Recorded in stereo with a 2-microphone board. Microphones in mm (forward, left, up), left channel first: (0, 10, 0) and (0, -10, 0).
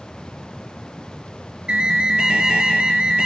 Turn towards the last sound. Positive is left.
turn(degrees=-80)